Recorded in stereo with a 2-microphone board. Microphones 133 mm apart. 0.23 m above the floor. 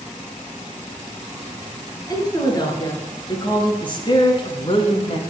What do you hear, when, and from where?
2.1 s a woman speaking: 30° left (ahead or behind), 3.5 m; by 5.2 s 45° left (ahead or behind), 1.9 m